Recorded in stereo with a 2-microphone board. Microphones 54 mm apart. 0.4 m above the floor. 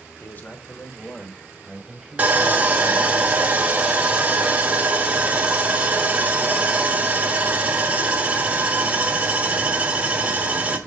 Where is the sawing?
25° right (ahead or behind), 1.0 m.